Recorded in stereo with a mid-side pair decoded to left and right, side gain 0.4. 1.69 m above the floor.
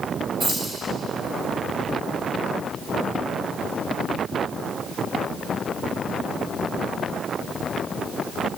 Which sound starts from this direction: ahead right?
Keys jangling, at 0.4 s.